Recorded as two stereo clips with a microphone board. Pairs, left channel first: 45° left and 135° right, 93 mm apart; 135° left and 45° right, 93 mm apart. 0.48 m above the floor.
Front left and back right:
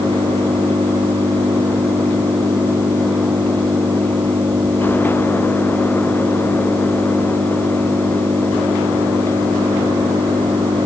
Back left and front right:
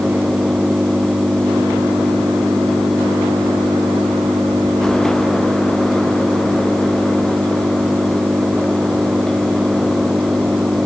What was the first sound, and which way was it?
An engine running, 115° right.